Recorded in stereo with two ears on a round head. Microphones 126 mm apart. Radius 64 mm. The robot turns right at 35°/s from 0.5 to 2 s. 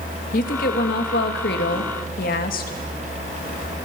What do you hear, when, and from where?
0.3 s a woman speaking: 60° left, 2.5 m; by 2.8 s 110° left, 2.5 m